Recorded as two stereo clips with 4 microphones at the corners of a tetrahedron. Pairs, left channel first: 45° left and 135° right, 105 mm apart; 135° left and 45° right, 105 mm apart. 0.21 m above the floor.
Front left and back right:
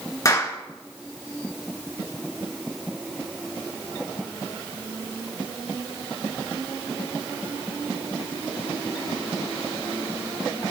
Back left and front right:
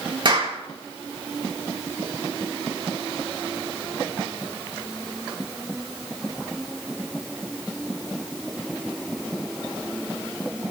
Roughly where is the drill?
I don't hear a drill.